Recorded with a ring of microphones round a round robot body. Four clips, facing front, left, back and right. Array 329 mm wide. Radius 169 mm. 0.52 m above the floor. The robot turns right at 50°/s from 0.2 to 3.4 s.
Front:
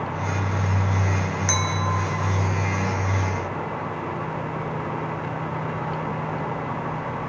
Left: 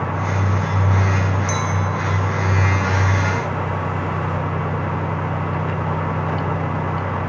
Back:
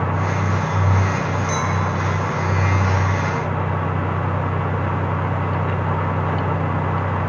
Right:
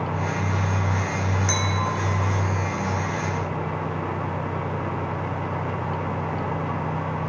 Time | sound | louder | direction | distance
1.5 | a clink | left 4 dB, back 4 dB | 25° right | 0.9 m